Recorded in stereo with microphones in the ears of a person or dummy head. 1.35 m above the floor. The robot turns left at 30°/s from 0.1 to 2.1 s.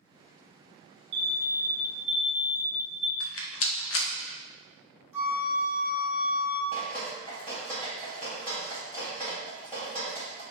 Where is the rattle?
70° left (ahead or behind), 0.5 m.